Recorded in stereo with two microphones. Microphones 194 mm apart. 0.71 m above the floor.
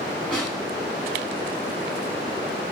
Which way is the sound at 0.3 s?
5° left (ahead or behind).